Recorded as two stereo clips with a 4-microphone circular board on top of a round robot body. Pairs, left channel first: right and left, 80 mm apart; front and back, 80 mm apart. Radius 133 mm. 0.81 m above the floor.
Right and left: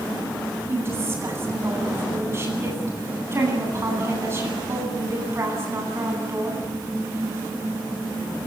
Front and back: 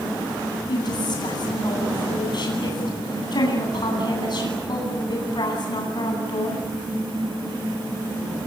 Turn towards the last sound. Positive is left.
turn(degrees=30)